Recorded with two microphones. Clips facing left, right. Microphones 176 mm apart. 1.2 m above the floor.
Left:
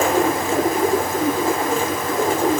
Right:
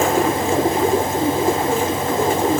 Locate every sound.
Only background noise.